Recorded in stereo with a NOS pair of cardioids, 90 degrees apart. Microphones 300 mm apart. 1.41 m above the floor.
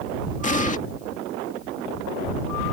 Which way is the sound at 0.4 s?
25° left.